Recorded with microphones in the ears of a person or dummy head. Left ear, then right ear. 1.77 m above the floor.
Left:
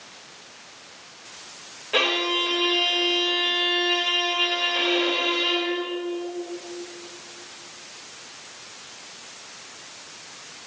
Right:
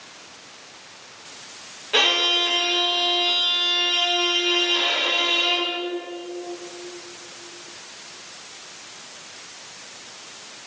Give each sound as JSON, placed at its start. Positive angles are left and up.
{"t": 1.9, "sound": "a violin", "side_deg": 10, "distance_m": 5.0}